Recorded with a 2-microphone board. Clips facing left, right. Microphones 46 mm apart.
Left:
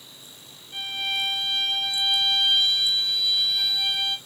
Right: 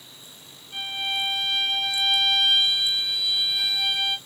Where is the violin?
10° right (ahead or behind), 1.8 m.